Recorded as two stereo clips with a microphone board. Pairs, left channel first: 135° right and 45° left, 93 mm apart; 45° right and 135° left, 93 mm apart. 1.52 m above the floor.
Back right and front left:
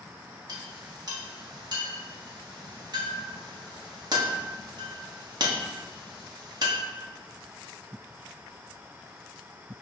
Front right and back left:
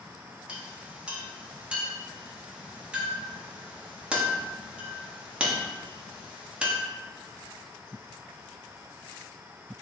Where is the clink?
60° left, 1.0 m.